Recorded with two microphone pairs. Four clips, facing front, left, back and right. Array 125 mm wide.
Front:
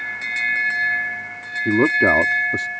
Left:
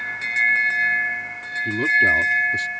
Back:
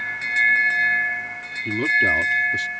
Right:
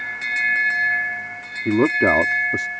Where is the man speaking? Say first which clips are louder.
Right 4 dB, front 6 dB; 50° right.